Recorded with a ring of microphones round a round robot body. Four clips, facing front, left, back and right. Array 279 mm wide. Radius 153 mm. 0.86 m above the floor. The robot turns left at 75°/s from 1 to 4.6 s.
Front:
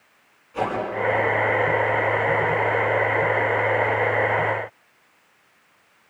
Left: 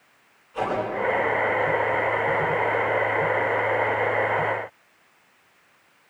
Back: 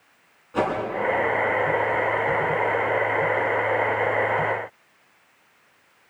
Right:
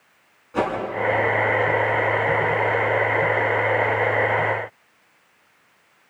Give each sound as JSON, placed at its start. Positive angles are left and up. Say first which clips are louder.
{"t": 0.5, "sound": "a whoosh", "louder": "right 4 dB, back 2 dB", "azimuth_deg": -130, "distance_m": 9.5}